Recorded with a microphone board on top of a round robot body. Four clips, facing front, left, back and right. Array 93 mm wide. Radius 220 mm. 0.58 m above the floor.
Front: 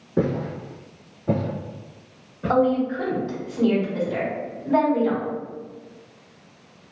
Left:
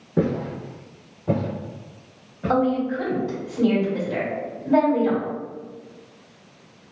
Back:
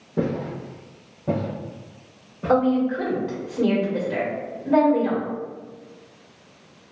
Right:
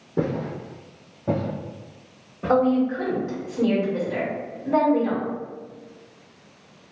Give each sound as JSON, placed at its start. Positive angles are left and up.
{"t": 0.2, "sound": "footsteps", "azimuth_deg": 50, "distance_m": 0.7}
{"t": 2.5, "sound": "a woman speaking", "azimuth_deg": -150, "distance_m": 1.9}